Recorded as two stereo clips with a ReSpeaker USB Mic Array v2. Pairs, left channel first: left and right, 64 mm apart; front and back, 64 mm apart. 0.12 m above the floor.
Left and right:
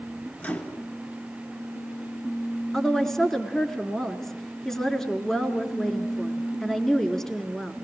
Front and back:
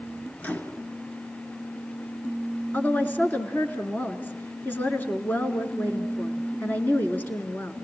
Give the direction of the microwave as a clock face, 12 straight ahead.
11 o'clock.